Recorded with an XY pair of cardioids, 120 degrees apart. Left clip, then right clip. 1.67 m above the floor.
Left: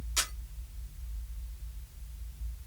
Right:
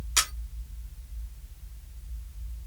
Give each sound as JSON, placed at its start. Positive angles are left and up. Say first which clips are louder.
{"t": 0.2, "sound": "a camera shutter", "louder": "right 6 dB", "azimuth_deg": -60, "distance_m": 1.5}